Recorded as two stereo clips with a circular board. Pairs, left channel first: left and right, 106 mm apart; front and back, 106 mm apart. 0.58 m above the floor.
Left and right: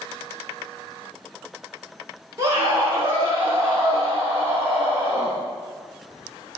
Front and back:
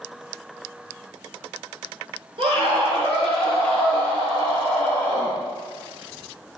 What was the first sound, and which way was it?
A scream, 155° right.